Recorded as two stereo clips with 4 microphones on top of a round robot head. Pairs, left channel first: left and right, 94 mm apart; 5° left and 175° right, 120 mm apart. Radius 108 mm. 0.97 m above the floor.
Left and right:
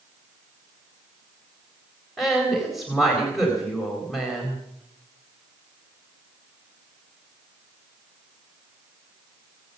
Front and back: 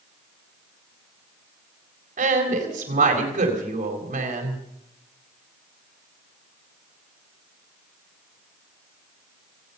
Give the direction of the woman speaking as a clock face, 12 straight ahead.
6 o'clock.